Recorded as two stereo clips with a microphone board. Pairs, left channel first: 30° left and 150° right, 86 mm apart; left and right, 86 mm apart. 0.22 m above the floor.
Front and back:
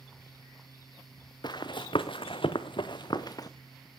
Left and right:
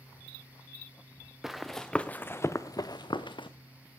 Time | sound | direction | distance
1.4 | running footsteps | 5° right | 1.1 m